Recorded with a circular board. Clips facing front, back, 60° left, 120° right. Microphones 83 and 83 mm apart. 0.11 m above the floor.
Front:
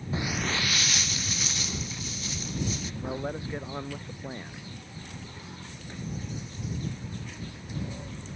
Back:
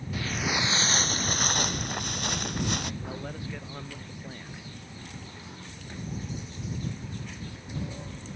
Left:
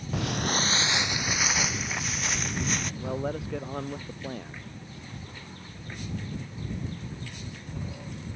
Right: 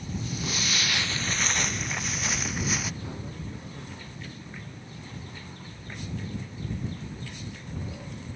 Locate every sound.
0.1 s footsteps: 60° left; by 2.9 s 155° left
3.0 s a man speaking: 65° left